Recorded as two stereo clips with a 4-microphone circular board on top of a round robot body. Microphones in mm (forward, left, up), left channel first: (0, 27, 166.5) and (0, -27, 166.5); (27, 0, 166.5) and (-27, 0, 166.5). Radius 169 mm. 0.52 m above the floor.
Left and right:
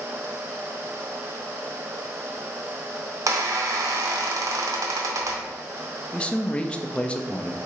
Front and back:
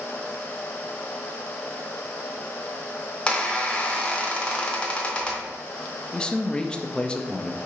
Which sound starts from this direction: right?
A squeak, at 3.3 s.